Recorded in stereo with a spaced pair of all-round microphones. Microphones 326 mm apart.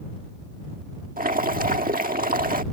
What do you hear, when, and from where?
1.2 s boiling: 25° right (ahead or behind)